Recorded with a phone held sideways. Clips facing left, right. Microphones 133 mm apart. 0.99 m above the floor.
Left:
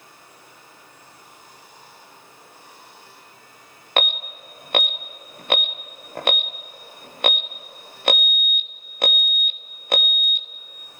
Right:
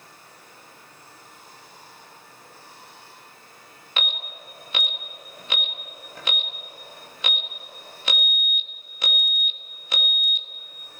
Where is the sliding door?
I don't hear a sliding door.